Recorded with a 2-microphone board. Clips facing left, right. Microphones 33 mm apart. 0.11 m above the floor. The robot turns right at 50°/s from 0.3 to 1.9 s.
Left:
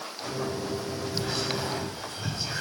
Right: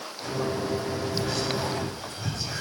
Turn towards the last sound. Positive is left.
turn(degrees=25)  # may be behind; listen again after turning